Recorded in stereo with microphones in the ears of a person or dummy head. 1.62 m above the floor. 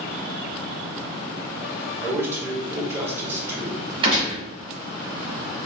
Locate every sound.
2.0 s a man speaking: 10° right (ahead or behind), 1.4 m
4.0 s a gunshot: 25° right (ahead or behind), 1.1 m